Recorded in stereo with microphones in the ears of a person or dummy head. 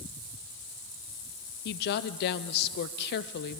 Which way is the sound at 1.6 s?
60° left (ahead or behind).